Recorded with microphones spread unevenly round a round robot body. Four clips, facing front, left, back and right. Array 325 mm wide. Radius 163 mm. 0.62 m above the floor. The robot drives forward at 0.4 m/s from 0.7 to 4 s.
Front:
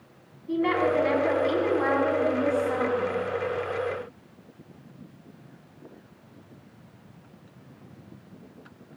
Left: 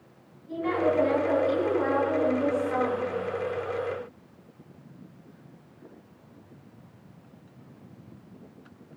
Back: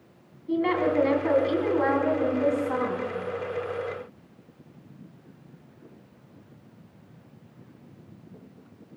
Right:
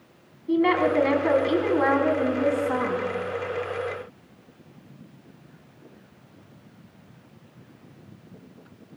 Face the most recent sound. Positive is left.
turn(degrees=-115)